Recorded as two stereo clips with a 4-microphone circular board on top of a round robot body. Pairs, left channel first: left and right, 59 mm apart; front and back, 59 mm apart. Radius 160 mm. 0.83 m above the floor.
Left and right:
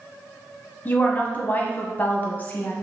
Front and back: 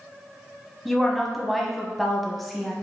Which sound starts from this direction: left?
A woman speaking, at 0.8 s.